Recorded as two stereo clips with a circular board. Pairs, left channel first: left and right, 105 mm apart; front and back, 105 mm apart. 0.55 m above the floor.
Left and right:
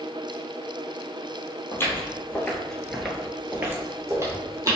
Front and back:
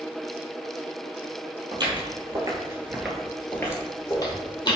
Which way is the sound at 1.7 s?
150° left.